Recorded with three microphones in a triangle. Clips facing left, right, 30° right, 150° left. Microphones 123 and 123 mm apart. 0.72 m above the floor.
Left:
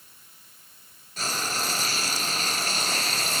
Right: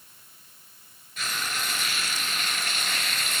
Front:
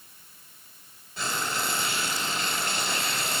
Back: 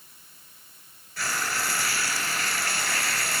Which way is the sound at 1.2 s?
40° left.